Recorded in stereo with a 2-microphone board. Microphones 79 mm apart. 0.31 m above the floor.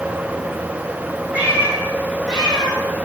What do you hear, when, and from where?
1.3 s a cat meowing: 20° right (ahead or behind), 2.5 m; by 2.8 s 5° left (ahead or behind), 2 m